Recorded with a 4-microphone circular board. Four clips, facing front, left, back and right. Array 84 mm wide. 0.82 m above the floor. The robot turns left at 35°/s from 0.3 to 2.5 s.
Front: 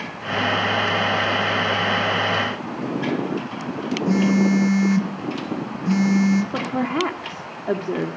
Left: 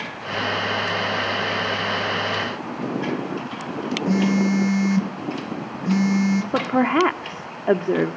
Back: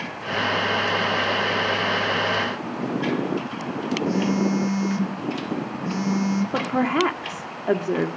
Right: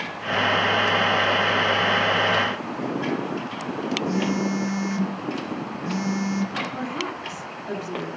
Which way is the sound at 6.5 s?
100° left.